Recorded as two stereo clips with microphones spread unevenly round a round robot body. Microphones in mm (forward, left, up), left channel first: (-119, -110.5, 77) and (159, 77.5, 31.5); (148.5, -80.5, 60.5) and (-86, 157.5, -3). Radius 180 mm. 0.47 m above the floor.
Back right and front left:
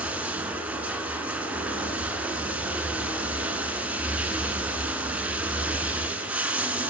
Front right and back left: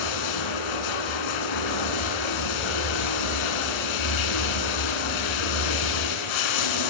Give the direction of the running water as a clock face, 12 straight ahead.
2 o'clock.